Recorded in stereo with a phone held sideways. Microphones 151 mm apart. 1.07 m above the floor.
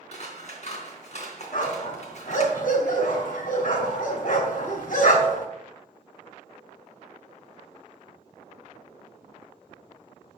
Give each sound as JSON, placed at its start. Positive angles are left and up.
{"t": 0.1, "sound": "scissors", "side_deg": 55, "distance_m": 3.5}
{"t": 1.5, "sound": "a dog barking", "side_deg": 70, "distance_m": 3.5}